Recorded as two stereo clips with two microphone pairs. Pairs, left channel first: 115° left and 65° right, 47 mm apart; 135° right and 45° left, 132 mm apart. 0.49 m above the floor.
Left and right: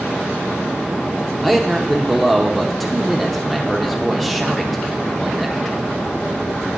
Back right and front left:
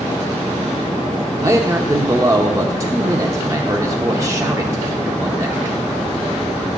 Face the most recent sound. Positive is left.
turn(degrees=30)